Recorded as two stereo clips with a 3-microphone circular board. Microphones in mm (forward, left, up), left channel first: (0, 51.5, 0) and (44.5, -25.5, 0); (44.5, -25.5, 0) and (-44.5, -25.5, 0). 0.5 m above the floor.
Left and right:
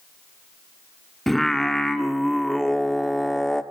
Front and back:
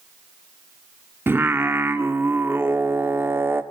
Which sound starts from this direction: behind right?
Singing, at 1.3 s.